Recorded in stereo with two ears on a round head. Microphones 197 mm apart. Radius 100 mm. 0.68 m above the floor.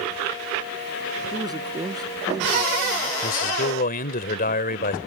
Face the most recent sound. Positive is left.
turn(degrees=45)  # may be behind; listen again after turning